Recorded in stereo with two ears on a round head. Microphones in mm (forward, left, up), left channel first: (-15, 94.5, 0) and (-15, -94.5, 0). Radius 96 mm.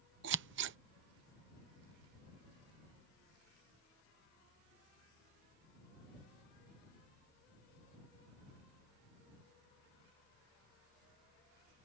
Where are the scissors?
55° right (ahead or behind).